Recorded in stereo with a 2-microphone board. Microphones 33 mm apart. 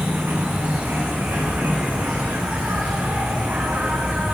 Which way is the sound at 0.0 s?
80° right.